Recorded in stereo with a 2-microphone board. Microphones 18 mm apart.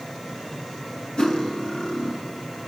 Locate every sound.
1.2 s cutlery clinking: 45° left (ahead or behind), 1.8 m